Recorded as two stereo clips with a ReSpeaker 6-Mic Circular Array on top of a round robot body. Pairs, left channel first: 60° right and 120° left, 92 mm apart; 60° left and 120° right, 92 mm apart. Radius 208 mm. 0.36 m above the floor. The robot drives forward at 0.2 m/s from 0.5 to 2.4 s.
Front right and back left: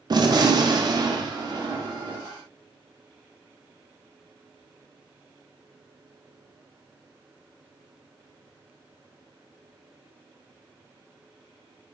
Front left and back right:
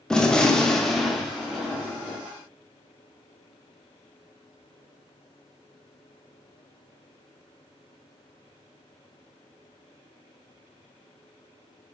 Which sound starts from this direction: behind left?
A gunshot, at 0.1 s.